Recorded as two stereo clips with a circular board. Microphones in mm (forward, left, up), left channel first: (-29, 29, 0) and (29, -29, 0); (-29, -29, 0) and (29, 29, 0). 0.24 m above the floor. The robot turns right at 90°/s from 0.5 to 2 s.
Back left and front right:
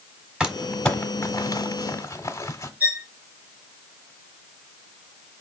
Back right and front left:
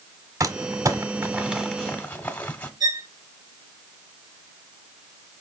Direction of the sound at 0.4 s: 30° left.